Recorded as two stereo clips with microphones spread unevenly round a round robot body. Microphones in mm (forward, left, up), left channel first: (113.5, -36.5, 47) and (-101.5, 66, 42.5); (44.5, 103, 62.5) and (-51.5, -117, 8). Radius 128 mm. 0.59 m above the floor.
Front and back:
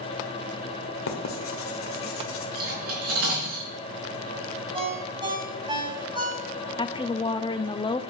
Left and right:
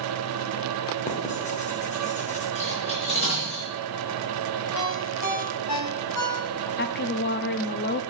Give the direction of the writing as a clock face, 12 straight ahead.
12 o'clock.